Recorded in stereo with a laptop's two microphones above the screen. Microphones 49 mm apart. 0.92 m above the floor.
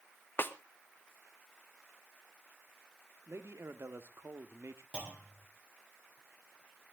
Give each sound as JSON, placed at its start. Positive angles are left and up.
{"t": 0.4, "sound": "a snare drum", "side_deg": 40, "distance_m": 1.4}
{"t": 3.3, "sound": "a man speaking", "side_deg": -55, "distance_m": 1.6}
{"t": 4.9, "sound": "a clunk", "side_deg": -20, "distance_m": 4.5}